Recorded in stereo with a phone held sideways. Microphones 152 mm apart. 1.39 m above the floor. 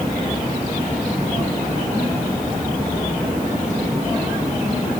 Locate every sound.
Only background noise.